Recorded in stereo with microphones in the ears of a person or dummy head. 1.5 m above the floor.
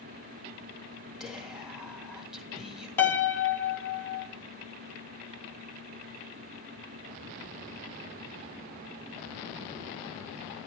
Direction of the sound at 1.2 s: 5° right (ahead or behind).